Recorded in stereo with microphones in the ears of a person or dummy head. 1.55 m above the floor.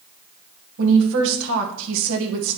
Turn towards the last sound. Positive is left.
turn(degrees=-75)  # may be behind; listen again after turning